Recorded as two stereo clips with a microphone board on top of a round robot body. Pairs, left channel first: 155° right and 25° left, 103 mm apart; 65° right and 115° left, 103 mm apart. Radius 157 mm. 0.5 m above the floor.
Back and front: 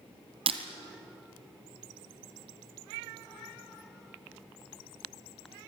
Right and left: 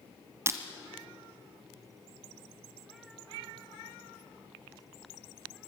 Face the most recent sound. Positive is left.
turn(degrees=50)